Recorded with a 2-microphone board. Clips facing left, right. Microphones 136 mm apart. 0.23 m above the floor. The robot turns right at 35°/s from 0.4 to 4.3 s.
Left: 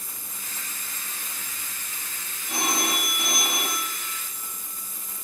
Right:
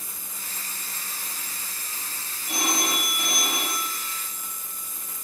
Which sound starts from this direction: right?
A phone ringing, at 2.5 s.